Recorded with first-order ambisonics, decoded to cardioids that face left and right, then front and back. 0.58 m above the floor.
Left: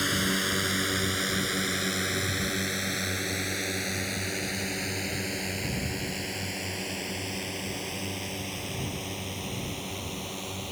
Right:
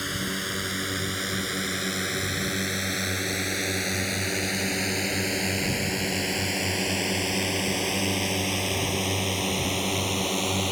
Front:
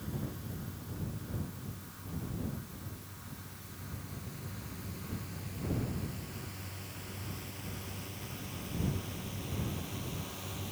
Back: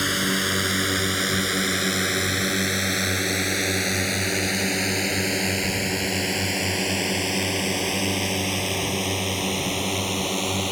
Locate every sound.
0.0 s a drone: 170° left; by 10.7 s 145° right